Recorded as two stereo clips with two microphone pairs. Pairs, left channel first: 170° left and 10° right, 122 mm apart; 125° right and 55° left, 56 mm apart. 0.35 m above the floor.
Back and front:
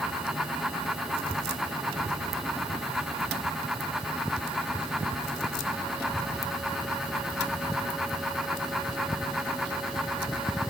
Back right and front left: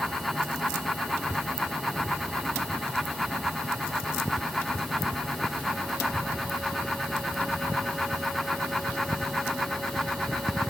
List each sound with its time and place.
Only background noise.